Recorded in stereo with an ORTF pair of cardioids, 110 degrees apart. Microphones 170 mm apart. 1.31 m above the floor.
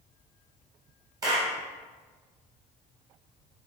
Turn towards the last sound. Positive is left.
turn(degrees=-20)